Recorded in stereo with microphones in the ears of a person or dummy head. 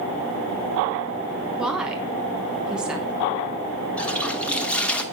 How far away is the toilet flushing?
About 0.8 m.